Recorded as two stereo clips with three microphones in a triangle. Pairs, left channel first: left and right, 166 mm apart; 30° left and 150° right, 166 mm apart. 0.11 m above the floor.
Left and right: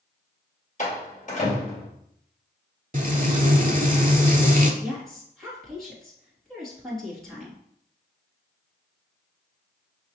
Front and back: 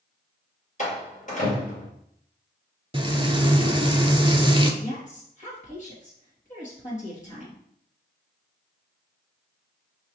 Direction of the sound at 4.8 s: 5° left.